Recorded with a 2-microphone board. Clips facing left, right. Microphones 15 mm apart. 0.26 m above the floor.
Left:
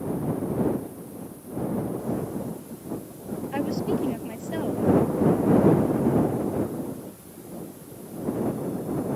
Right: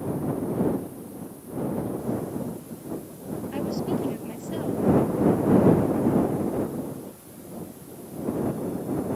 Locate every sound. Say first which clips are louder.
3.5 s a woman speaking: left 2 dB; 60° left (ahead or behind)